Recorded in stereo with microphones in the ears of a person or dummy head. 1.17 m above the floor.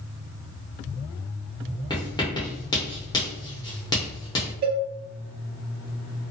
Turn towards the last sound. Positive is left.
turn(degrees=-50)  # may be behind; listen again after turning